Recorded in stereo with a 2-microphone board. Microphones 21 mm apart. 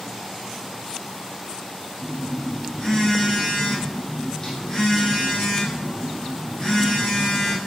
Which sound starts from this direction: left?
A phone buzzing, at 2.0 s.